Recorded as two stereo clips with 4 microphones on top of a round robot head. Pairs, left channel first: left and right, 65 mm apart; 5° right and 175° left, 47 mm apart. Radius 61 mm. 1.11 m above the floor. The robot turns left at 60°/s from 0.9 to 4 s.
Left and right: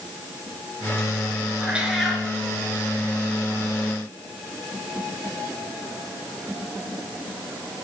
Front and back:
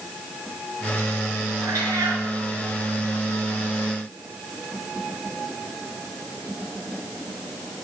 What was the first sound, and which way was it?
A cat meowing, 160° right.